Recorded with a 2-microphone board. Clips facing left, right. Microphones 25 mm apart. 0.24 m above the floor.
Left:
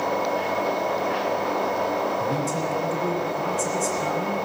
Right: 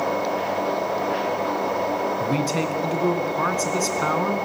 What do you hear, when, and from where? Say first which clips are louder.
2.2 s a man speaking: right 2 dB; 60° right (ahead or behind), 2.5 m